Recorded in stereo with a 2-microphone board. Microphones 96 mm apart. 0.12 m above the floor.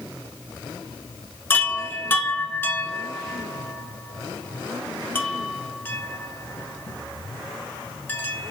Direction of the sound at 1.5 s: 25° left (ahead or behind).